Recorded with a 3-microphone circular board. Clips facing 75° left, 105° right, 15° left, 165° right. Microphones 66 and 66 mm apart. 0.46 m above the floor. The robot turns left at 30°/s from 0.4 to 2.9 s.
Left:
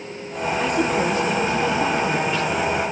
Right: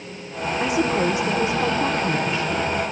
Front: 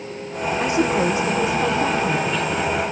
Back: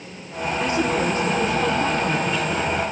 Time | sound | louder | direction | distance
0.6 | a woman speaking | right 1 dB, front 2 dB | 25° right | 0.8 m